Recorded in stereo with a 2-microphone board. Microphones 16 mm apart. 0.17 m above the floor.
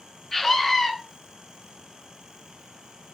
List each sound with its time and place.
0.3 s a scream: 35° left (ahead or behind), 2.5 m